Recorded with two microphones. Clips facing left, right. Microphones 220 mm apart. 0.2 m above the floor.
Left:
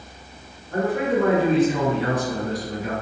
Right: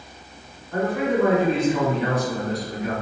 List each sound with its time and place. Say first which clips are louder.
0.7 s a man speaking: even; 45° left (ahead or behind), 1.7 m